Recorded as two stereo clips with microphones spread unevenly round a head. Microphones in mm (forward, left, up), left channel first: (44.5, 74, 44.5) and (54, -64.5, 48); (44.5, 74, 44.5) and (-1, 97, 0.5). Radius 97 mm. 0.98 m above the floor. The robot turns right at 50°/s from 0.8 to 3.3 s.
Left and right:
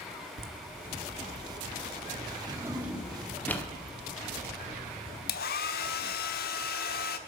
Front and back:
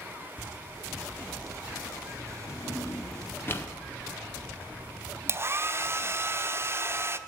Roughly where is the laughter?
Right.